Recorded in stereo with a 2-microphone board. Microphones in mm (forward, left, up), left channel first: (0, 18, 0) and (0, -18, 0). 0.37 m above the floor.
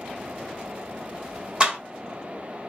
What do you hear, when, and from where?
1.6 s a clap: 30° right (ahead or behind), 1.3 m